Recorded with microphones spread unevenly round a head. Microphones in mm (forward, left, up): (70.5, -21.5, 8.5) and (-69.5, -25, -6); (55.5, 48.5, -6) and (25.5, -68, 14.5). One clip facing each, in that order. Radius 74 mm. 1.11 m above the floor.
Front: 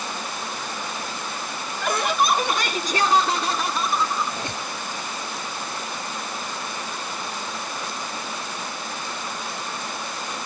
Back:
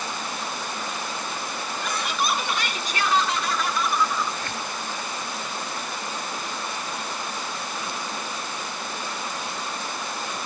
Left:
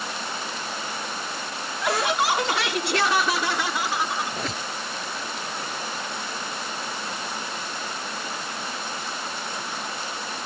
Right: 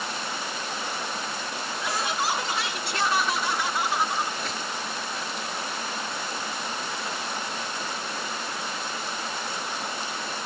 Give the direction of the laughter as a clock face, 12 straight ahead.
10 o'clock.